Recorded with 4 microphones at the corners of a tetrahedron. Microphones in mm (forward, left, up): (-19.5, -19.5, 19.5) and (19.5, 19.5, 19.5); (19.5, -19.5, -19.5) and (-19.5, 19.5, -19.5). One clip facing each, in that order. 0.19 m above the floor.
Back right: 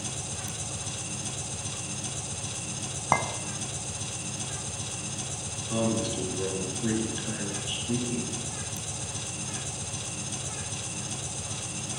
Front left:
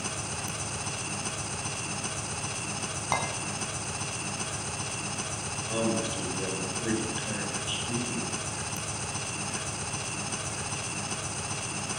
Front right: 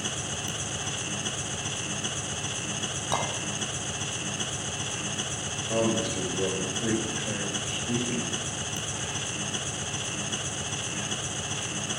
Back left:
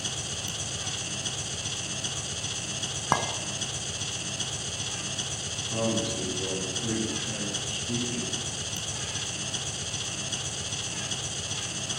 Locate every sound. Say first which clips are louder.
0.0 s an engine running: front left 3 dB, front right 3 dB; 20° left, 0.8 m
3.1 s a clink: back right 4 dB, back left 3 dB; 165° left, 1.0 m
5.7 s a man speaking: back right 1 dB, front right 2 dB; 25° right, 3 m